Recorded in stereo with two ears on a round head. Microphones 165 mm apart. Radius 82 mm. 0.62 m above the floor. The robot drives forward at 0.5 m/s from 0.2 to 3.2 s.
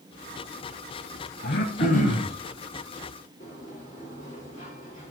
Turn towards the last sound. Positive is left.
turn(degrees=45)  # may be behind; listen again after turning